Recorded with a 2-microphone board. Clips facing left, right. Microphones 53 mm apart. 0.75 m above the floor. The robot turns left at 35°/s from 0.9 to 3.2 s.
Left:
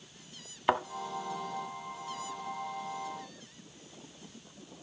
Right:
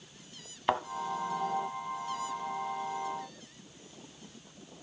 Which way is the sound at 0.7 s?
5° left (ahead or behind).